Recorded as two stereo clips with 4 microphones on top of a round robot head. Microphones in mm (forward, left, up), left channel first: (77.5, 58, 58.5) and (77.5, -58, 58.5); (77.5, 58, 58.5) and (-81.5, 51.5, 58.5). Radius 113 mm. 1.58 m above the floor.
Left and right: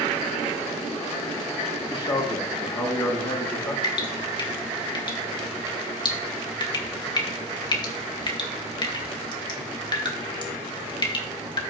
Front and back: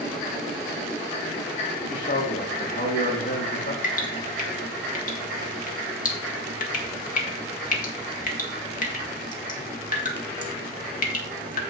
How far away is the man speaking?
About 2.5 m.